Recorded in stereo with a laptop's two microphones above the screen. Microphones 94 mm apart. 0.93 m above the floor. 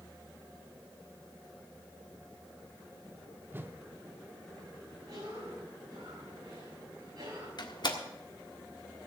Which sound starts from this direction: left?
A door slam, at 7.6 s.